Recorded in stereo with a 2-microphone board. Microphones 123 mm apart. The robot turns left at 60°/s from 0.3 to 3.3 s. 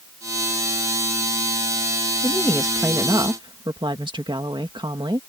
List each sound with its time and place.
2.2 s a woman speaking: 20° left; by 5.2 s 40° right